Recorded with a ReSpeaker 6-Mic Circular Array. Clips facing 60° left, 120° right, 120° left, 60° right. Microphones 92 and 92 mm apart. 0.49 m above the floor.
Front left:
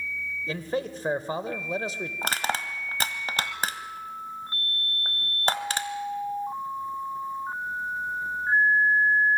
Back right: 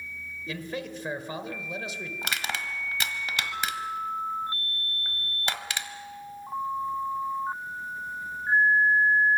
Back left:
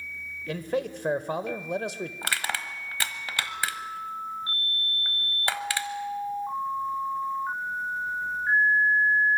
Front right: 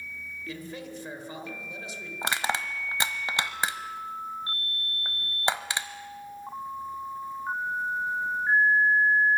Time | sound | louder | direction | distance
0.5 | a man speaking | front left 5 dB, back left 10 dB | 110° left | 1.4 m
2.2 | crushing | front left 5 dB, front right 5 dB | 10° left | 1.2 m